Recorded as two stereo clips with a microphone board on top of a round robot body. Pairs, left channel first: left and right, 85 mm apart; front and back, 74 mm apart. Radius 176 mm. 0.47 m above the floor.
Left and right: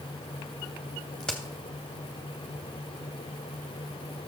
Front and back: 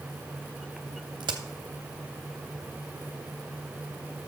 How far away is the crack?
About 0.7 m.